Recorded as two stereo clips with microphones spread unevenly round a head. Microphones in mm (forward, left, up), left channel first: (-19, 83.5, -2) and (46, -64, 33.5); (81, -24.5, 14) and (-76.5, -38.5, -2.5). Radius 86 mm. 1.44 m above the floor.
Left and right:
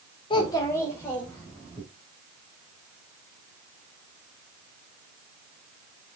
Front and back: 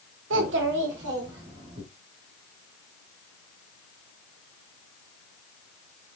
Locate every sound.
0.3 s a child speaking: straight behind, 0.6 m; by 1.8 s 165° right, 2 m